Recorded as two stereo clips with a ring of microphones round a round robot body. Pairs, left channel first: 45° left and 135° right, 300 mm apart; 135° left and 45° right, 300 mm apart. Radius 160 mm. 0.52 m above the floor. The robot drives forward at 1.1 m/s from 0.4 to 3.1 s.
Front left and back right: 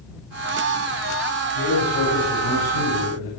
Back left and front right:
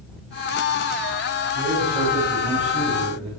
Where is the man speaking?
30° left, 4.5 m; by 3.3 s 50° left, 3 m.